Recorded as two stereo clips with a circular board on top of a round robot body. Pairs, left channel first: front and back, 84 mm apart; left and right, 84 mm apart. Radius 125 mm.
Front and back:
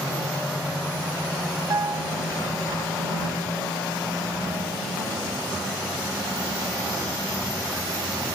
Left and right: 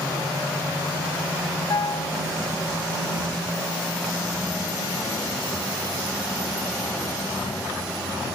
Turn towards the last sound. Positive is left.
turn(degrees=130)